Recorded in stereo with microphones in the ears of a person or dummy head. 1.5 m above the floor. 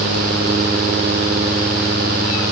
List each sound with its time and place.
Only background noise.